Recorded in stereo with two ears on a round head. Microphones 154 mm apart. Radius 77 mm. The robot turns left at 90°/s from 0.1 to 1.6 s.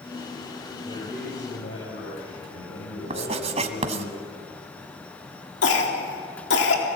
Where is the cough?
75° left (ahead or behind), 3 m.